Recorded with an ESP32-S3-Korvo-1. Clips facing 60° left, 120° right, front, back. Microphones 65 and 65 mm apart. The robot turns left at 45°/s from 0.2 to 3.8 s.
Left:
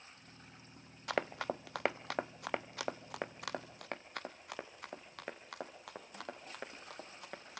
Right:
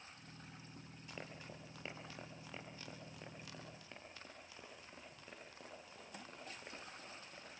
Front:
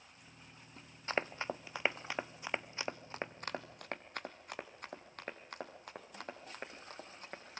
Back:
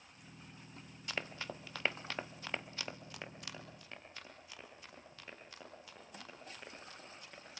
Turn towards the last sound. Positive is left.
turn(degrees=45)